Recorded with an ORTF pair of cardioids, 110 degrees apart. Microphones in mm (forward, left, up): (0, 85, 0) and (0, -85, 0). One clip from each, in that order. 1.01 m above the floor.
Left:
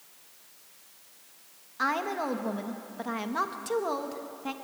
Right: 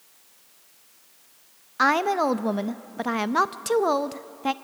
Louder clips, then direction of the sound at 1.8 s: Right 8 dB; 50° right.